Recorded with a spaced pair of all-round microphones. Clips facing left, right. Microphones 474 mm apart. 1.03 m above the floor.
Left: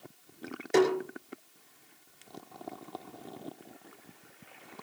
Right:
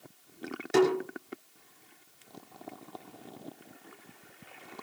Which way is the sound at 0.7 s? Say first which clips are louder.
Right 1 dB; 25° right (ahead or behind).